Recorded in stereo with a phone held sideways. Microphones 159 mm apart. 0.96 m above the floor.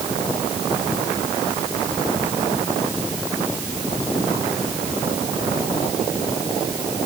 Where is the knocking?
No knocking in this recording.